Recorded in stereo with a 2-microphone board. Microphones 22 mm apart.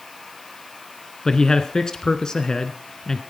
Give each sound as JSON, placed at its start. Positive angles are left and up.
{"t": 1.2, "sound": "a man speaking", "side_deg": 30, "distance_m": 1.6}